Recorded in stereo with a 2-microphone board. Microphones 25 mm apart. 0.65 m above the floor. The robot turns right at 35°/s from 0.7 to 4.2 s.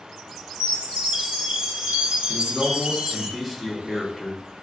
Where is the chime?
140° right, 0.8 m; by 3.3 s 50° right, 0.8 m.